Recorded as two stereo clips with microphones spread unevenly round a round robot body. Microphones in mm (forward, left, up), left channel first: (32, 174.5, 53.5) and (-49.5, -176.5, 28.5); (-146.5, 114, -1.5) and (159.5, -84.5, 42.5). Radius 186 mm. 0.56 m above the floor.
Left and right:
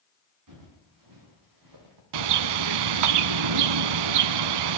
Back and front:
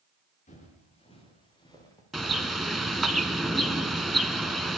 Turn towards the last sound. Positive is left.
turn(degrees=-120)